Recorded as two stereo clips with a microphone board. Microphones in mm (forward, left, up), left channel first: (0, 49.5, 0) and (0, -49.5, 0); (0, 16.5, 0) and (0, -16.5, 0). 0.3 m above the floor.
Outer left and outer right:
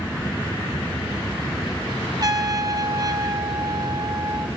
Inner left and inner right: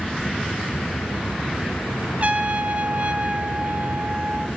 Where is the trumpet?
40° right (ahead or behind), 1.3 m.